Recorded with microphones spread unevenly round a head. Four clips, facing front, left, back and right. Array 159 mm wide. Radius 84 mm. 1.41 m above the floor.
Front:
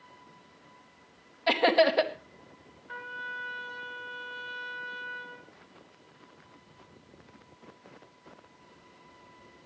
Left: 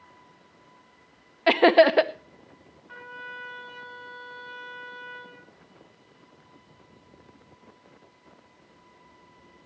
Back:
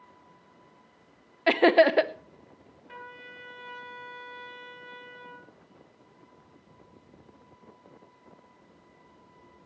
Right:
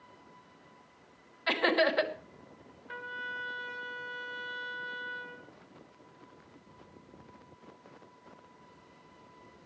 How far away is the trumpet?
About 6.5 m.